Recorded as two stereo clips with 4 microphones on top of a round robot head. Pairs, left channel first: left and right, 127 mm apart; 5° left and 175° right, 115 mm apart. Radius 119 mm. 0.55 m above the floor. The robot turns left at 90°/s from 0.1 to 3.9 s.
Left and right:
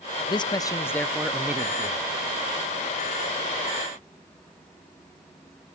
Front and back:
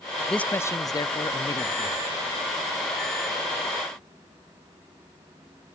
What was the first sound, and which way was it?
A man speaking, 85° left.